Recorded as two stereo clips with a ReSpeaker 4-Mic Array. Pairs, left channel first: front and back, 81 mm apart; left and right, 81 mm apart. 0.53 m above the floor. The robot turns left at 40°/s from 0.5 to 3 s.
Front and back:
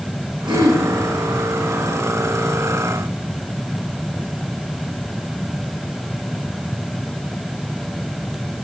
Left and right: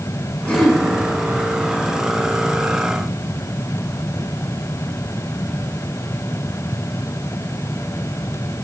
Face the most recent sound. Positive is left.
turn(degrees=65)